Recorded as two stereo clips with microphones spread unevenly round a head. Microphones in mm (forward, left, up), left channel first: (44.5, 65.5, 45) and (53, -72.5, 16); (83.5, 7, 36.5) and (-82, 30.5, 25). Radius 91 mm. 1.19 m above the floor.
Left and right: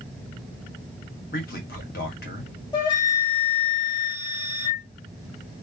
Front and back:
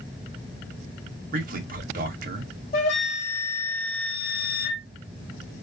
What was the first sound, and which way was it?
A man speaking, 135° left.